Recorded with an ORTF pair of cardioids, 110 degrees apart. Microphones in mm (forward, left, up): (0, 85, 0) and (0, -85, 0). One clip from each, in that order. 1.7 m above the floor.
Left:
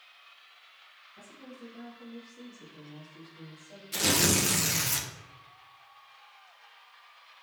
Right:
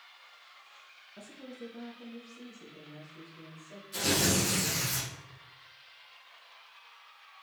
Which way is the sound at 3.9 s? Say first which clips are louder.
Left 3 dB; 50° left.